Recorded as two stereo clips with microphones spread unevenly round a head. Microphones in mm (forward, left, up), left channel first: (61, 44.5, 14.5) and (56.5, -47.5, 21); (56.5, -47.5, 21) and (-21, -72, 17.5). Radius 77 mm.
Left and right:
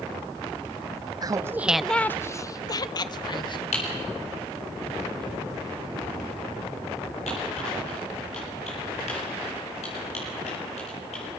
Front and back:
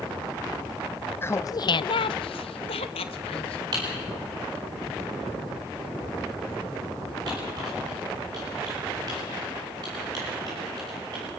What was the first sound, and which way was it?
Laughter, 45° right.